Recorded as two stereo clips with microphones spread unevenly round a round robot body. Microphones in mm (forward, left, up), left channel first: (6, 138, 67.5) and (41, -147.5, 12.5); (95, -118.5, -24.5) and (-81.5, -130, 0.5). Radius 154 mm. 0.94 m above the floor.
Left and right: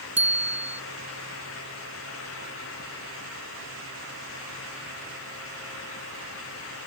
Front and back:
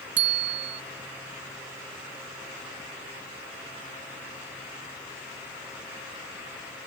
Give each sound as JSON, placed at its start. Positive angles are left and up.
{"t": 0.2, "sound": "a bicycle bell", "azimuth_deg": -170}